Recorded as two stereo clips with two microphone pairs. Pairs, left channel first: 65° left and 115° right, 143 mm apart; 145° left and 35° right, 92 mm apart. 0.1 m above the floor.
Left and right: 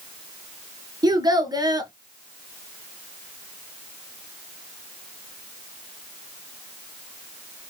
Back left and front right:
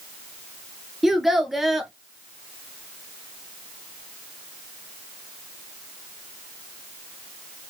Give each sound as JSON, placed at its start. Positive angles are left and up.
{"t": 1.0, "sound": "a child speaking", "azimuth_deg": -115, "distance_m": 0.9}